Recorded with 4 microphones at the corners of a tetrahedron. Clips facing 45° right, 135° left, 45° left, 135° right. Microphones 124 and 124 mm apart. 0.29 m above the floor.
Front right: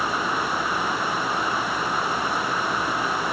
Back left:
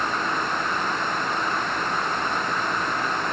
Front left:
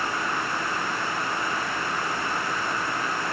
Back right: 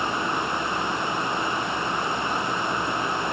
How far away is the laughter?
I don't hear laughter.